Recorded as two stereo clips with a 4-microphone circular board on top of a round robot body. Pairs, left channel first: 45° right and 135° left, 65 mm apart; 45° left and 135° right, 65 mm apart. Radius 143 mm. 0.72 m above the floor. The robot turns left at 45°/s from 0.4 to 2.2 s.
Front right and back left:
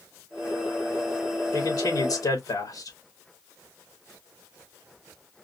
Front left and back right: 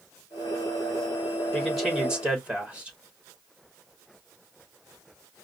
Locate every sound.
1.5 s a man speaking: 35° right, 3 m; by 3.0 s 65° right, 3 m